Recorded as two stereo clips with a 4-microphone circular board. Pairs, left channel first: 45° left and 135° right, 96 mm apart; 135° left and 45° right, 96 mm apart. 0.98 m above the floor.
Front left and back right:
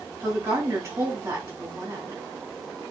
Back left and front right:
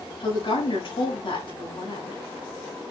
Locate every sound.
0.2 s a woman speaking: 165° left, 6.5 m